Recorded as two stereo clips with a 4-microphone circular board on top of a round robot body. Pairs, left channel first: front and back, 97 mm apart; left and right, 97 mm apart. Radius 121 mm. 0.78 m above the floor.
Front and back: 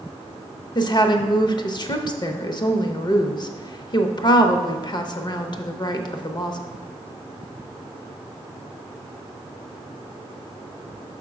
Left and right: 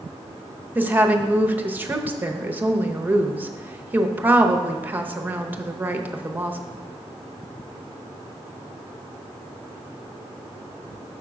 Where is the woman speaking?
25° right, 0.9 m.